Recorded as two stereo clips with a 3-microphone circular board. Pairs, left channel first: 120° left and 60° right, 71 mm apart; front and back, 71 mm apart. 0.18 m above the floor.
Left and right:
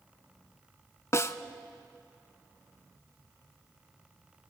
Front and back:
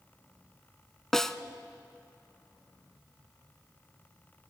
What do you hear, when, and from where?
1.1 s a snare drum: 80° left, 0.7 m